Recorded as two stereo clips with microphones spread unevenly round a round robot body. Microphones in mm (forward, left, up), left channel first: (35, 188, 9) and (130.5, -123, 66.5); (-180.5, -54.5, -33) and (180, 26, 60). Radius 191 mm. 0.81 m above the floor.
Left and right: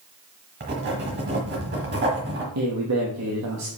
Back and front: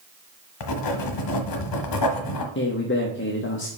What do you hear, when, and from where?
0.6 s writing: 130° right, 1.1 m
2.5 s a man speaking: 120° right, 0.9 m